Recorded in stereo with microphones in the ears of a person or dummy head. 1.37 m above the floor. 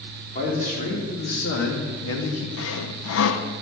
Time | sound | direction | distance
0.3 | a man speaking | 30° left (ahead or behind) | 3 m
2.6 | sawing | 65° left (ahead or behind) | 0.8 m